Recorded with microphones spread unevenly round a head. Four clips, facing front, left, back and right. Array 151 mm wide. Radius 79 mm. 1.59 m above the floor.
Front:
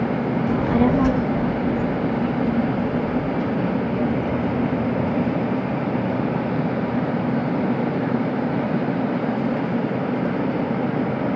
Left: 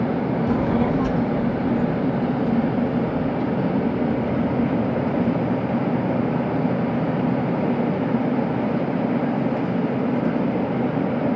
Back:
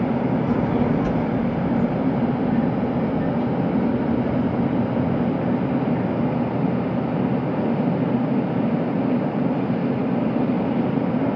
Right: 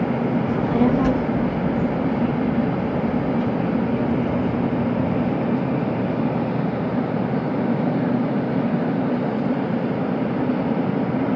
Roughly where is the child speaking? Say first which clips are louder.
Right 2 dB, front 2 dB; left.